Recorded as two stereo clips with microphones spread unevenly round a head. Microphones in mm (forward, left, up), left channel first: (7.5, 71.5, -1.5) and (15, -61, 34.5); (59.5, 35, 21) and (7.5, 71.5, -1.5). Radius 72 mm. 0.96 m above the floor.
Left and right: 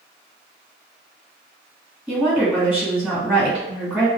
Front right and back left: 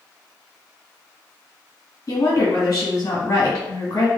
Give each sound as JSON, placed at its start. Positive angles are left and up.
{"t": 2.1, "sound": "a woman speaking", "azimuth_deg": 0, "distance_m": 1.9}